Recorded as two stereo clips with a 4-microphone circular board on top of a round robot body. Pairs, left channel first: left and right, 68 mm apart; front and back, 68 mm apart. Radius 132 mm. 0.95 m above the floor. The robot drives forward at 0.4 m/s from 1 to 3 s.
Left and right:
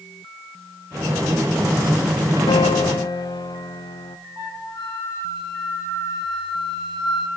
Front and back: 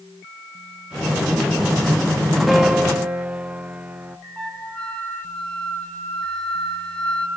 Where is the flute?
75° left, 3.5 m.